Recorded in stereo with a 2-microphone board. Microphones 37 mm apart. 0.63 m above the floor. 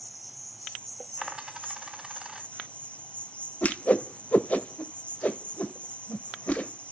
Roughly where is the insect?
Left.